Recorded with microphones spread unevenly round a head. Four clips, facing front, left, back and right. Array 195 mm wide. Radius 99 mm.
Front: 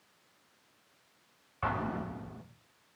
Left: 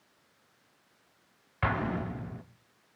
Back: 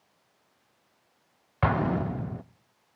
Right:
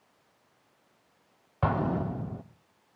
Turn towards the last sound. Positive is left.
turn(degrees=-145)